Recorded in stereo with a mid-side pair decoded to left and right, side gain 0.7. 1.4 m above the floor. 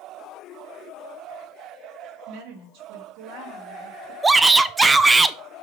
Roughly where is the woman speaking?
Ahead right.